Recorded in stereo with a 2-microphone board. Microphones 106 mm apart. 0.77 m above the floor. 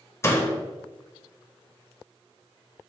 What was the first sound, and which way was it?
A door slam, 25° left (ahead or behind).